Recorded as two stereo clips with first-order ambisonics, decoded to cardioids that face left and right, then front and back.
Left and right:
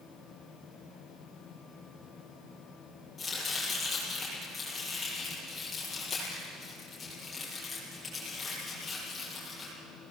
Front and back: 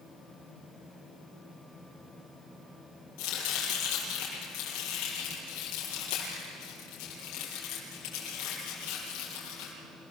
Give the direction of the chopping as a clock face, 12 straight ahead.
11 o'clock.